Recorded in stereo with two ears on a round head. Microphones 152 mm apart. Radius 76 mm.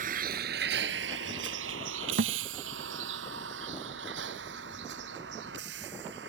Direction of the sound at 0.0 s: 50° right (ahead or behind).